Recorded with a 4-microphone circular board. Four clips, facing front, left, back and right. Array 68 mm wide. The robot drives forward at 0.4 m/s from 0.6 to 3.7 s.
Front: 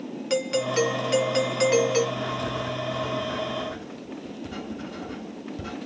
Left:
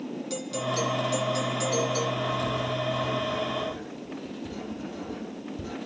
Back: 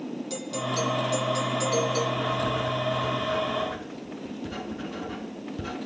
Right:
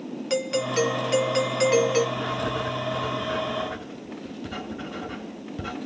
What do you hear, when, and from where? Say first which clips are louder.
0.3 s a doorbell: right 7 dB, front 8 dB; 45° right, 2 m; by 2.1 s 60° right, 1.7 m
2.2 s writing: right 1 dB, back 2 dB; 100° right, 6.5 m; by 5.8 s 105° right, 6.5 m